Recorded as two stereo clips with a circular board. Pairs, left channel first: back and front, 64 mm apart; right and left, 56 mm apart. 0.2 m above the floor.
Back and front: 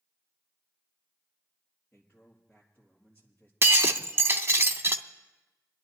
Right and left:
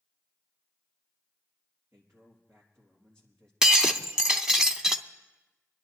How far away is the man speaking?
About 3.5 m.